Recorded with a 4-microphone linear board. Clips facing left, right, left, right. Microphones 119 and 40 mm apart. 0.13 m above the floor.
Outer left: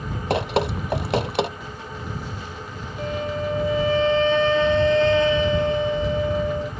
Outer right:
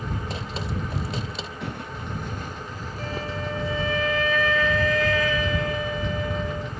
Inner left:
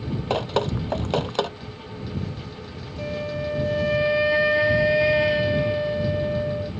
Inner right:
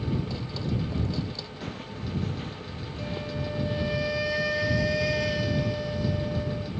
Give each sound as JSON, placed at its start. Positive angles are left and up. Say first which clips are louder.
{"t": 0.3, "sound": "dripping", "louder": "outer left 10 dB, inner left 9 dB", "side_deg": 70}
{"t": 1.6, "sound": "footsteps", "louder": "outer right 1 dB, even", "side_deg": -70}
{"t": 3.0, "sound": "a flute", "louder": "outer left 6 dB, inner left 6 dB", "side_deg": 30}